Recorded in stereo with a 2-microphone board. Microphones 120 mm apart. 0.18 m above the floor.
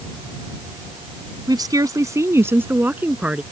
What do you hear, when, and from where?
1.5 s a woman speaking: 35° right (ahead or behind); by 3.4 s 10° right (ahead or behind)